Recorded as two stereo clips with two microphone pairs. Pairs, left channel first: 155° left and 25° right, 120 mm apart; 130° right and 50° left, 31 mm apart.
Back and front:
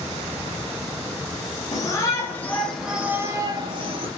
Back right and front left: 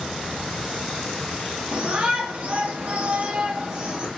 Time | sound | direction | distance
1.7 | a shout | 100° left | 1.5 m